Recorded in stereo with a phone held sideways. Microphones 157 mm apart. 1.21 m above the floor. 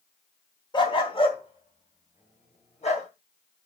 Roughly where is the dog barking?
Left.